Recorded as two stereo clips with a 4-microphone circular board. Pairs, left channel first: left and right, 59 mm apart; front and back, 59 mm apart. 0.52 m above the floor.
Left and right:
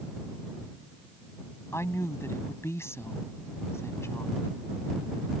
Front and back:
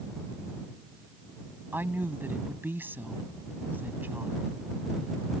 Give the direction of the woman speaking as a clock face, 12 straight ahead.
8 o'clock.